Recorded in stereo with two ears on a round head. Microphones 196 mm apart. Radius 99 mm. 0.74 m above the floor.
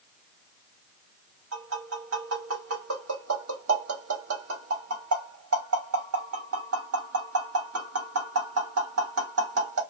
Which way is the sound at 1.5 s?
75° right (ahead or behind).